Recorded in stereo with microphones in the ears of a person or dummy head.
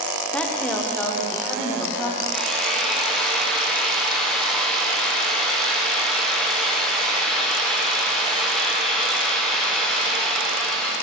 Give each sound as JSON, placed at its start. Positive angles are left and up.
{"t": 0.3, "sound": "a woman speaking", "side_deg": 10, "distance_m": 0.9}
{"t": 2.3, "sound": "a drill", "side_deg": 5, "distance_m": 1.2}